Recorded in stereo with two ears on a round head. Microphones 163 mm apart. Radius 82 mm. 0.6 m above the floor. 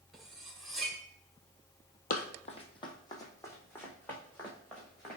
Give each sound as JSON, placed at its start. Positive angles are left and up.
{"t": 0.1, "sound": "cutlery clinking", "side_deg": 0, "distance_m": 1.2}
{"t": 2.1, "sound": "running footsteps", "side_deg": 50, "distance_m": 1.0}